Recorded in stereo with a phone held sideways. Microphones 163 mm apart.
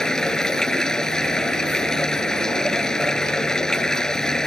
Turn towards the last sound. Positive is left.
turn(degrees=5)  # may be behind; listen again after turning